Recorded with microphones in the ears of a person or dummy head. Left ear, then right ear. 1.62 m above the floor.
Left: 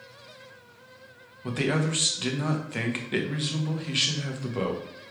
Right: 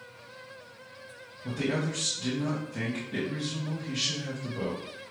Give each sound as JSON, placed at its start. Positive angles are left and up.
{"t": 1.4, "sound": "a man speaking", "side_deg": 40, "distance_m": 0.7}